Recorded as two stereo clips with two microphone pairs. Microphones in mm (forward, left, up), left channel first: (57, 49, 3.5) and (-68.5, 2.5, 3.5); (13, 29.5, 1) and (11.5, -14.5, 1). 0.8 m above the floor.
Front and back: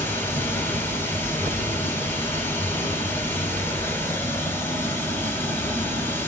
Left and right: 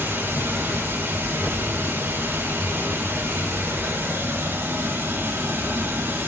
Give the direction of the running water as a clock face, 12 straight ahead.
2 o'clock.